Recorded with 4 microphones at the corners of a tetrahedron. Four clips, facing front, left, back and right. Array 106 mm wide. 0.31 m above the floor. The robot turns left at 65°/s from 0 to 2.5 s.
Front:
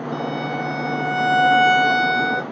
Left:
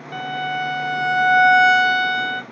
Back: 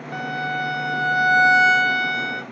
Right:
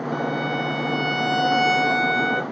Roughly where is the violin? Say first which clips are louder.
Left 2 dB, back 1 dB; behind.